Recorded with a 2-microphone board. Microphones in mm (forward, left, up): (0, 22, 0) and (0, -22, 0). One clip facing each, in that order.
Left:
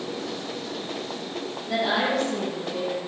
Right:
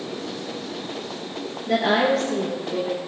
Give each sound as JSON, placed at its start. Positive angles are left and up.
{"t": 1.7, "sound": "a woman speaking", "side_deg": -60, "distance_m": 4.5}